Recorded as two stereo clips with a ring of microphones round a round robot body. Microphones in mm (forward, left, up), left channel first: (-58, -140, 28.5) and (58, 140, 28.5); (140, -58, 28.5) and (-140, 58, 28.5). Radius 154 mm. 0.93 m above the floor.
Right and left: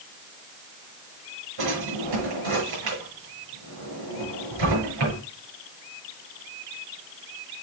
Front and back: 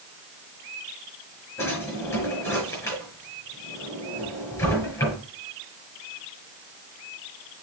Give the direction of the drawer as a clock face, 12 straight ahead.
10 o'clock.